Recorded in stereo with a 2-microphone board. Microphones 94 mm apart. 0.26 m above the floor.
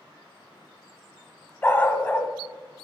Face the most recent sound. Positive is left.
turn(degrees=20)  # may be behind; listen again after turning